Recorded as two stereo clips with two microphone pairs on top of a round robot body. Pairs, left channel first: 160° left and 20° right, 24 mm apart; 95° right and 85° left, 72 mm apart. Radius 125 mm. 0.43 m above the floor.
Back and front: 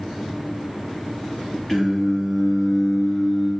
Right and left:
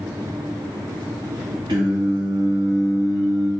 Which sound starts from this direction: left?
Singing, at 1.7 s.